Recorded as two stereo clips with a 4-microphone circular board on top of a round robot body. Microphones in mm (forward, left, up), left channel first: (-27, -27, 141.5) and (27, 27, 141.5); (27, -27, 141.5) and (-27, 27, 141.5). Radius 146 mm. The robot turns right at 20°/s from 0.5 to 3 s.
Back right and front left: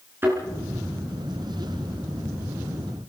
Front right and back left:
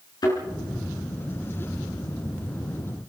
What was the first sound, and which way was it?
A thud, 15° right.